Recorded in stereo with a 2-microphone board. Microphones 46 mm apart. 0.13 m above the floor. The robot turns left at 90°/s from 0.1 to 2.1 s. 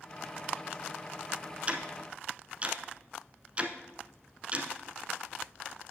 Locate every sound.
1.7 s ticking: 30° right (ahead or behind), 0.8 m